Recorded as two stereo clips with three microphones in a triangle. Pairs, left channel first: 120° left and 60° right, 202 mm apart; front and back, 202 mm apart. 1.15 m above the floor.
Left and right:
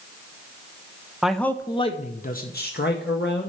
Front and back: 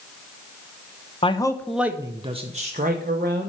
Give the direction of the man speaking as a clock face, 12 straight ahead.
11 o'clock.